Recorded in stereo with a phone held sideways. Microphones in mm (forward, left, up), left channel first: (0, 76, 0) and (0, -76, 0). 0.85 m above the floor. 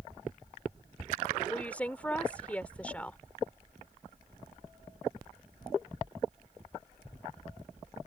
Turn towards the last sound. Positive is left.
turn(degrees=10)  # may be behind; listen again after turning